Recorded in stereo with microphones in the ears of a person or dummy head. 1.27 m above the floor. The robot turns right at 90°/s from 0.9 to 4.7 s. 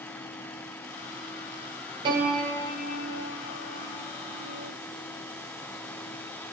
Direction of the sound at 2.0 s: 30° right.